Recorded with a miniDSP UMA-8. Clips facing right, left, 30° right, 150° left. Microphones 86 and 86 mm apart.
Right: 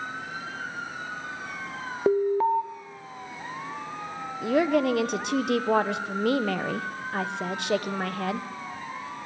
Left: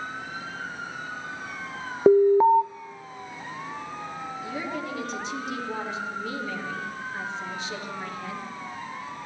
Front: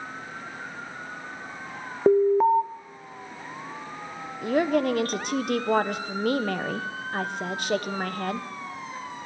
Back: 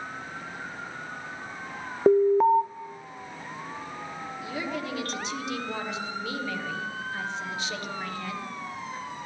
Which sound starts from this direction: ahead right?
A woman speaking, at 4.4 s.